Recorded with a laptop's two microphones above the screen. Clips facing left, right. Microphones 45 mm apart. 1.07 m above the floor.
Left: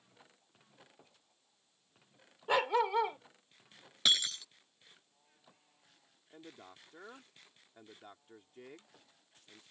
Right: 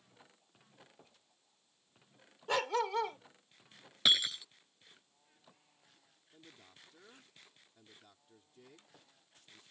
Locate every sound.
2.5 s a dog barking: 15° left (ahead or behind)
4.0 s breaking glass: 10° right (ahead or behind)
6.3 s a man speaking: 50° left (ahead or behind)